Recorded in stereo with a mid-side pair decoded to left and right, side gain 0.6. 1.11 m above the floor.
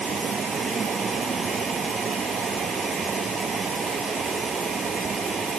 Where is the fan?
35° right.